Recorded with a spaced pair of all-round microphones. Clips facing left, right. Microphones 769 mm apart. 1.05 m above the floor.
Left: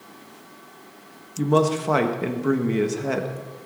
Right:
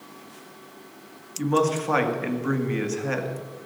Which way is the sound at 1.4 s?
65° left (ahead or behind).